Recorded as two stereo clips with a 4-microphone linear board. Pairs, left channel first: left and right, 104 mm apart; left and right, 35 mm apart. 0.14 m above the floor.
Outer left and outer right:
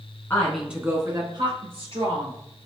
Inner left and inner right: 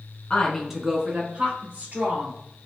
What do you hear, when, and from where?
0.3 s a woman speaking: 20° left (ahead or behind), 1.1 m; by 2.4 s 70° right (ahead or behind), 2.5 m